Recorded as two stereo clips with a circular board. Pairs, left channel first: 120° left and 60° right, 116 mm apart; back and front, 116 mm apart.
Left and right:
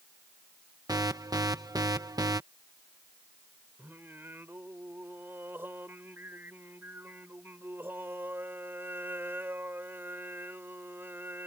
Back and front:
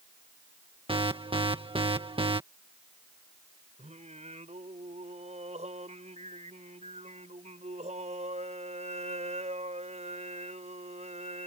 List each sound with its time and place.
0.9 s an alarm: 15° right
3.8 s singing: 10° left